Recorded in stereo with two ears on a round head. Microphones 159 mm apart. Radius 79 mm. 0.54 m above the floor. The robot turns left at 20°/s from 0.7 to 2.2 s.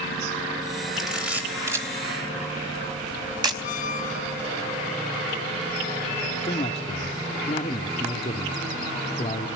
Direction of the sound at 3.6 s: 45° left (ahead or behind).